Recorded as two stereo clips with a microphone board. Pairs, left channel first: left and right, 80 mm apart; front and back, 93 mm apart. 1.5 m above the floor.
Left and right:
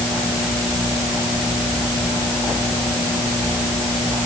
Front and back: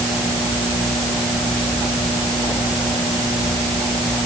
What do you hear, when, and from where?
Only background noise.